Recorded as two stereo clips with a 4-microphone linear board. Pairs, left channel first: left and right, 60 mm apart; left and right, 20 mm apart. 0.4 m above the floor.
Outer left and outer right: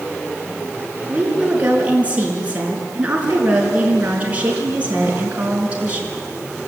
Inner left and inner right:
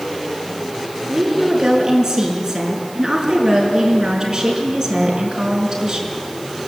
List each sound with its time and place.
1.1 s a woman speaking: 25° right (ahead or behind), 5.5 m